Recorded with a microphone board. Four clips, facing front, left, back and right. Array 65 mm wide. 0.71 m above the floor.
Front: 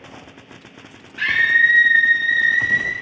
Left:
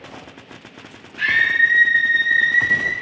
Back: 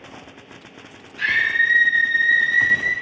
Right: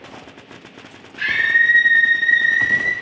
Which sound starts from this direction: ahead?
A scream, at 1.2 s.